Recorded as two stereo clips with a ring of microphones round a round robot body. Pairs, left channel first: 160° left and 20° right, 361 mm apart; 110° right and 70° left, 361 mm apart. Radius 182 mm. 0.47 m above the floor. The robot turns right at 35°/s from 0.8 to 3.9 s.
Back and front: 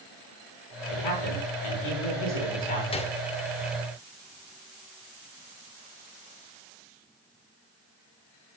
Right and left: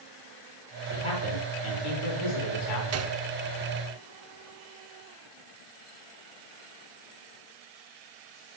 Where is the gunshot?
90° left, 0.9 m; by 3.2 s 100° left, 0.9 m.